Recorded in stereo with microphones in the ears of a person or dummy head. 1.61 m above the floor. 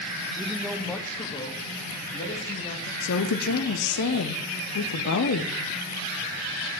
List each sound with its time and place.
0.4 s a man speaking: 5° right (ahead or behind), 0.9 m; by 2.9 s 45° left (ahead or behind), 2 m
3.0 s a woman speaking: 70° left (ahead or behind), 1.0 m